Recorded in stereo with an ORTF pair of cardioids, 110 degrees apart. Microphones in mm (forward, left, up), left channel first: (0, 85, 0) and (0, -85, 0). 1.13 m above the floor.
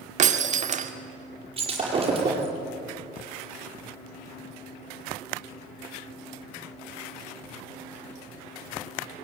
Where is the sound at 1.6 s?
35° right, 8.5 m.